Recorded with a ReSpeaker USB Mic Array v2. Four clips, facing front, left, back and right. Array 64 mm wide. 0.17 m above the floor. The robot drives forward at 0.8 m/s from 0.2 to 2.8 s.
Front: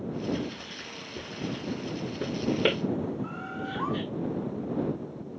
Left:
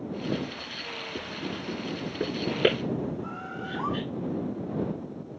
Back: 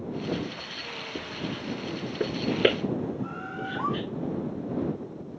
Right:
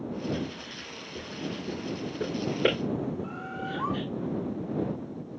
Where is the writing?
145° left, 9 m; by 4.0 s 150° left, 10.5 m.